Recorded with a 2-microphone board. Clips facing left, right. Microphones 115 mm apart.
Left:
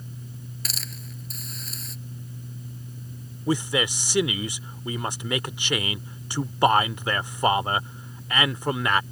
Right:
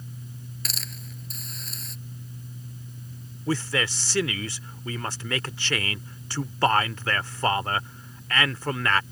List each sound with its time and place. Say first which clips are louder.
0.7 s a hiss: even; centre (ahead or behind)
3.5 s a man speaking: left 2 dB; 15° left (ahead or behind)